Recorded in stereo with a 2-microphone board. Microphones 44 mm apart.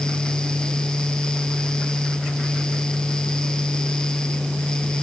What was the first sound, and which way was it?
Only background noise.